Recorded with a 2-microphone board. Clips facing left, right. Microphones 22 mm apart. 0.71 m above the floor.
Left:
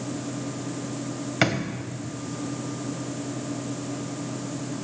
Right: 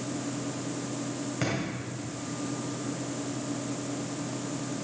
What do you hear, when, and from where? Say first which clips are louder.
1.4 s a drawer: left 8 dB; 85° left, 2 m